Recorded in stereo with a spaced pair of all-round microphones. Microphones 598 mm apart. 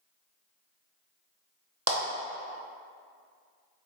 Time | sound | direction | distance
1.9 | a clap | 25° right (ahead or behind) | 0.7 m